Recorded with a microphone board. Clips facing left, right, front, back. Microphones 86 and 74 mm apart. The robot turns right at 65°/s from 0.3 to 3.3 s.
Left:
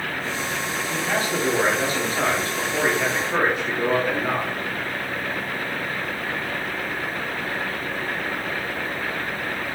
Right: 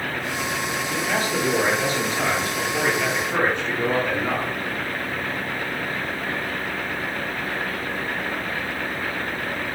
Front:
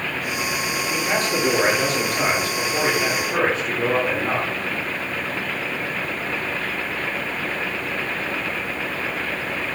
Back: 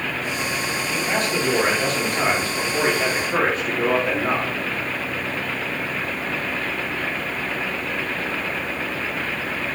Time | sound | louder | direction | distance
0.9 | a man speaking | even, front 1 dB | 15° left | 1.4 m